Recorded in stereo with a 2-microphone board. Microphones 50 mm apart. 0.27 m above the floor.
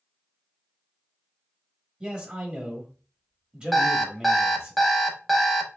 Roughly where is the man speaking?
Right.